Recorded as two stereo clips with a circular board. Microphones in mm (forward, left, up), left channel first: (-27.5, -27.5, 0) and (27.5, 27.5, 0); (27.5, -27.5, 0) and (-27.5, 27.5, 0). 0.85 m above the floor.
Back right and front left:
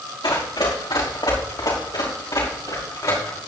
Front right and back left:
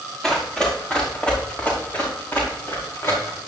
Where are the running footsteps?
130° right, 5 m; by 3.4 s 95° right, 5 m.